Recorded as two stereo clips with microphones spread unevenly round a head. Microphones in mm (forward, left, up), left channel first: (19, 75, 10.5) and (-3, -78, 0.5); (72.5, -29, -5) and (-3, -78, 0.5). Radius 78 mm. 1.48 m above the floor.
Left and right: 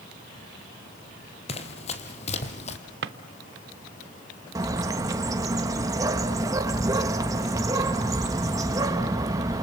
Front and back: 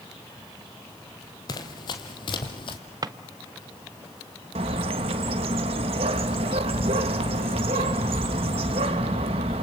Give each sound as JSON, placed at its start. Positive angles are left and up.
{"t": 1.5, "sound": "running footsteps", "azimuth_deg": 65, "distance_m": 2.0}
{"t": 3.0, "sound": "a drawer", "azimuth_deg": -110, "distance_m": 1.1}
{"t": 4.5, "sound": "a bird", "azimuth_deg": -170, "distance_m": 1.5}